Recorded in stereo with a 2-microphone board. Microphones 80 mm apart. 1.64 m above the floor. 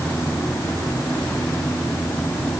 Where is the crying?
I don't hear crying.